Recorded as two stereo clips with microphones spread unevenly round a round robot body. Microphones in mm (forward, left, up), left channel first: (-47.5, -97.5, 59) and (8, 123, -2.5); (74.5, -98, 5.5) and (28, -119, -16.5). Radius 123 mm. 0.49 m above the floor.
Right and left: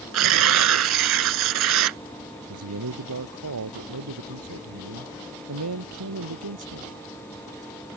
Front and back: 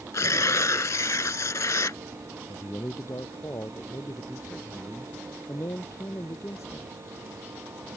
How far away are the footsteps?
I don't hear footsteps.